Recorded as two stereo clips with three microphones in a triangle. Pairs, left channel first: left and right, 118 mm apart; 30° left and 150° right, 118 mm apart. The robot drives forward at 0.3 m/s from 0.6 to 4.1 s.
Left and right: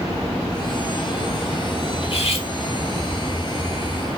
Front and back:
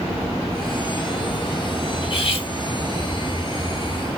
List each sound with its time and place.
2.0 s cutlery clinking: 60° left, 2.5 m; by 2.5 s 65° left, 2.5 m